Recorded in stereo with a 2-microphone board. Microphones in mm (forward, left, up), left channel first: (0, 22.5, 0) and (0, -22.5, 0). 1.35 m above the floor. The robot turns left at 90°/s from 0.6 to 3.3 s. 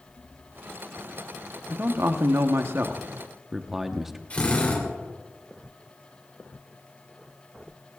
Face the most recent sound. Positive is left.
turn(degrees=30)  # may be behind; listen again after turning